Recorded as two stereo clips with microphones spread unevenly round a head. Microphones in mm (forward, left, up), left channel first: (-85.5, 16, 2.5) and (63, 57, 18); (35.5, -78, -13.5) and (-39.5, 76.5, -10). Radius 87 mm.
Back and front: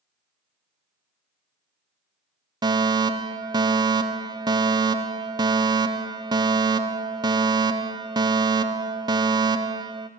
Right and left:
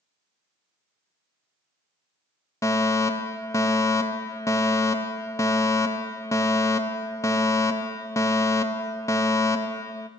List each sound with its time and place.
2.6 s a fire alarm: 20° right, 1.2 m